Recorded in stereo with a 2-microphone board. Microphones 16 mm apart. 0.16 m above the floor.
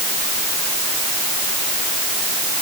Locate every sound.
Only background noise.